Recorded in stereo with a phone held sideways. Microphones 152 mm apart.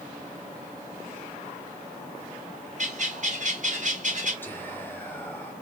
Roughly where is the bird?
Right.